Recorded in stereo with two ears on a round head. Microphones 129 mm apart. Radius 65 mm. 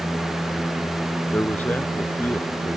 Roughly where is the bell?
No bell in this recording.